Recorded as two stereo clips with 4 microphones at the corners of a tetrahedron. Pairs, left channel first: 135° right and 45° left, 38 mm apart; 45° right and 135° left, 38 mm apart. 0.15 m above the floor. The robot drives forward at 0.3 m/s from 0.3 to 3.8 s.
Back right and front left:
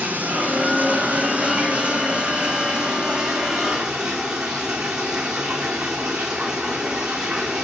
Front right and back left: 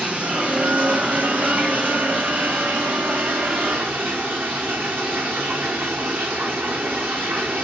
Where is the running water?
85° left, 1.7 m; by 7.6 s 120° left, 2.0 m.